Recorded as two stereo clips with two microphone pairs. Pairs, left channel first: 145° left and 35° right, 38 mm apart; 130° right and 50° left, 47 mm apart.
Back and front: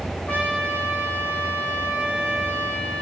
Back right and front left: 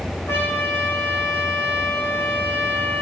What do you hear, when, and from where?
0.3 s a trumpet: 160° right, 4 m